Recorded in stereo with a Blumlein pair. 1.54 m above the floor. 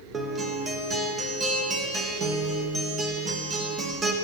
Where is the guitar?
20° right, 0.6 m.